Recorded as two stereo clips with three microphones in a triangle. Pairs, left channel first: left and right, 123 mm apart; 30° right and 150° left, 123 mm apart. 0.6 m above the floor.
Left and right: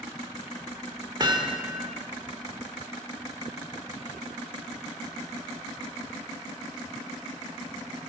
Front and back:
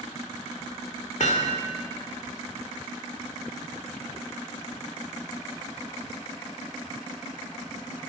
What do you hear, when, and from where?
1.2 s hammering: 40° right, 1.5 m